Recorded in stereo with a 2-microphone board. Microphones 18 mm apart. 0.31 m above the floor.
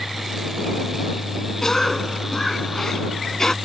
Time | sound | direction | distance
1.6 | a cough | 30° left (ahead or behind) | ?